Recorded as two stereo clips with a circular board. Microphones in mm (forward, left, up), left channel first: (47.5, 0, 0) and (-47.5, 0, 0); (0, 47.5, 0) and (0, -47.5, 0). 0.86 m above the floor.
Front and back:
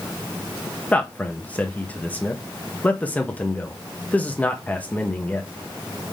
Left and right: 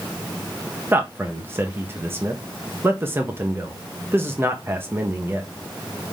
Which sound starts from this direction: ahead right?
A man speaking, at 0.9 s.